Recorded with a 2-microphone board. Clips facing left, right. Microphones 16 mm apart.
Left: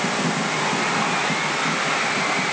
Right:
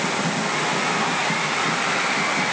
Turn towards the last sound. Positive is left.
No sound to turn to.